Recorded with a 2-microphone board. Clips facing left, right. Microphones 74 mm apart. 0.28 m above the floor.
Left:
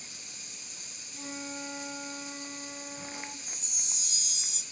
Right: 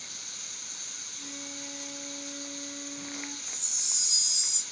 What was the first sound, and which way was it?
Running water, 65° right (ahead or behind).